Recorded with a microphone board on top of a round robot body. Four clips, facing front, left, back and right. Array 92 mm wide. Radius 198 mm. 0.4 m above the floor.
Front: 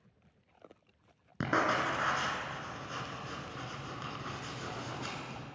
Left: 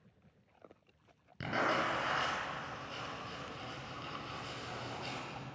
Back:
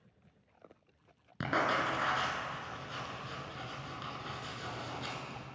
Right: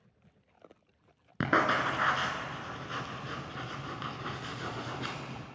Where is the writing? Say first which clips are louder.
Right 6 dB, front 1 dB; 70° right, 1.3 m.